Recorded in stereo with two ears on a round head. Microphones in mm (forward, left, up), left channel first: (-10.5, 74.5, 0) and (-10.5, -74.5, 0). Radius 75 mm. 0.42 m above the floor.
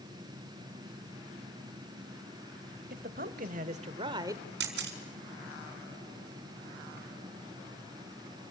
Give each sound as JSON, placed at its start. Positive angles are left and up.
{"t": 2.9, "sound": "a man speaking", "side_deg": -55, "distance_m": 2.0}
{"t": 4.6, "sound": "a camera shutter", "side_deg": -75, "distance_m": 4.0}